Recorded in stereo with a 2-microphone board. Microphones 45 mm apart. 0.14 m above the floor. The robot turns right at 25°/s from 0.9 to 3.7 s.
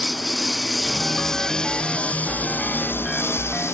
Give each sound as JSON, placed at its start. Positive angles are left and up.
{"t": 0.0, "sound": "a lawn mower", "azimuth_deg": 0}